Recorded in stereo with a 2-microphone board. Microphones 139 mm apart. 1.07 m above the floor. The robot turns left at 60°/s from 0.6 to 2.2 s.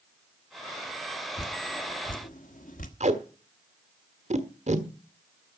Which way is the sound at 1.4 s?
55° left (ahead or behind).